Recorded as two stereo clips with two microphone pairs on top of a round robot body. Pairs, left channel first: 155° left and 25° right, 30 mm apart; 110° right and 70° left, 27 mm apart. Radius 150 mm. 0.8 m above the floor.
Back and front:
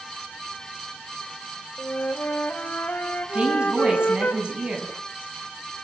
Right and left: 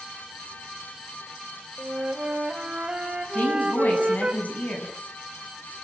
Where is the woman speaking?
80° right, 8 m.